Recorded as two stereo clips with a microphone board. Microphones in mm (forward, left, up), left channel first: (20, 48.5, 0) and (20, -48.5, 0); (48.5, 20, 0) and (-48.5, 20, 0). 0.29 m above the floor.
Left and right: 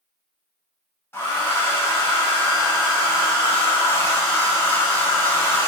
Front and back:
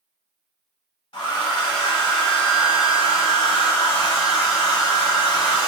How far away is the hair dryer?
About 1.0 m.